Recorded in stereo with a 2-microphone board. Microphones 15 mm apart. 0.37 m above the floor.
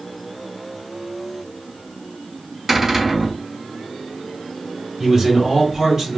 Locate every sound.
2.7 s a cupboard door: 30° right (ahead or behind), 1.5 m
5.0 s a man speaking: 35° right (ahead or behind), 2.0 m